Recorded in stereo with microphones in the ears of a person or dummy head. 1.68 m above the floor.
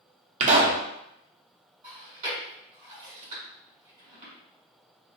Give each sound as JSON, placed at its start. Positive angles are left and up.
{"t": 0.4, "sound": "a pop", "side_deg": -35, "distance_m": 0.6}
{"t": 1.8, "sound": "chewing", "side_deg": -30, "distance_m": 1.5}